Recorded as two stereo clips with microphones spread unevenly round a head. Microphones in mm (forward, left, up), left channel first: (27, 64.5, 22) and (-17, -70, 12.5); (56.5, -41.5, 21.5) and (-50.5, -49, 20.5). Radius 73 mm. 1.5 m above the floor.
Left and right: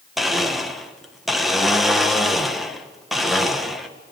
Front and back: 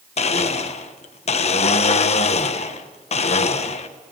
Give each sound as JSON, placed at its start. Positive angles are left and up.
{"t": 0.2, "sound": "a blender", "azimuth_deg": -20, "distance_m": 1.4}